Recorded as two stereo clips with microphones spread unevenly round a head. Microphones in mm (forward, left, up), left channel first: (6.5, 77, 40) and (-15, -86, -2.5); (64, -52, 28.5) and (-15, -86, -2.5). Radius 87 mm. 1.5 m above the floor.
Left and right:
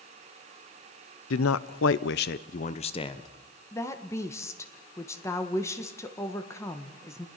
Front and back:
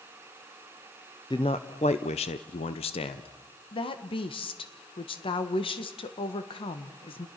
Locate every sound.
1.3 s a man speaking: 90° left, 0.8 m; by 3.3 s 15° left, 1.1 m
3.7 s a woman speaking: 10° left, 1.5 m